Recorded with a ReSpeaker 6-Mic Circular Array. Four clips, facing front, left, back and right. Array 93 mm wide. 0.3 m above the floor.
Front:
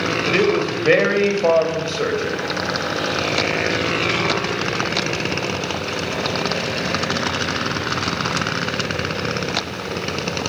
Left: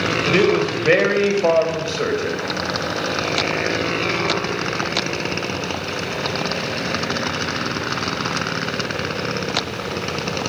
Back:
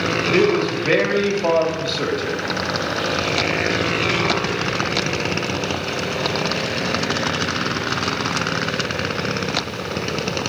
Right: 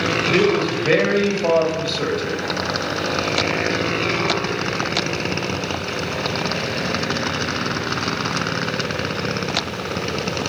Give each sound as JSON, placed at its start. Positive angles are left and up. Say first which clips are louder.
{"t": 0.3, "sound": "a man speaking", "louder": "left 1 dB, back 1 dB", "azimuth_deg": 50, "distance_m": 1.4}